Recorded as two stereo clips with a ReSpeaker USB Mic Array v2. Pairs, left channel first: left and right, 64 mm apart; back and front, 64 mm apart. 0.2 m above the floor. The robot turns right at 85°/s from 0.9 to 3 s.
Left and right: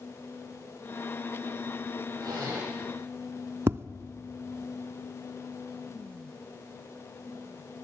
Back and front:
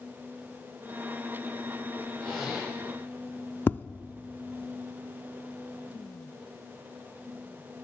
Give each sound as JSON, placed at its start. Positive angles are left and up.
{"t": 2.2, "sound": "a zipper", "azimuth_deg": -105, "distance_m": 7.5}
{"t": 3.7, "sound": "tapping", "azimuth_deg": -130, "distance_m": 0.6}